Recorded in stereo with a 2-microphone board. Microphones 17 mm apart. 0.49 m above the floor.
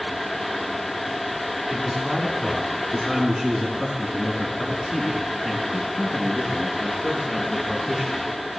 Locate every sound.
1.7 s a man speaking: centre (ahead or behind), 3.5 m; by 8.2 s 25° left (ahead or behind), 6.5 m